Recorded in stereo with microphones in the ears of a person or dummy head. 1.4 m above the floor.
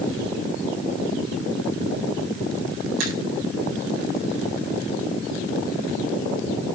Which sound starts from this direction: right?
A finger snap, at 3.0 s.